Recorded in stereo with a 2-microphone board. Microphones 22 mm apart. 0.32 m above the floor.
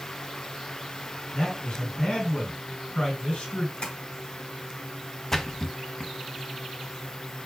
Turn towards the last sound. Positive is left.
turn(degrees=20)  # may be behind; listen again after turning